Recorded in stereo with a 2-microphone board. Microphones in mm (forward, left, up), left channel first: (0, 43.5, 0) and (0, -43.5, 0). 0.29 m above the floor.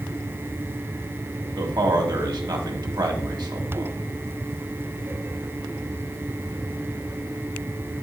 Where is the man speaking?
50° right (ahead or behind), 1.4 m.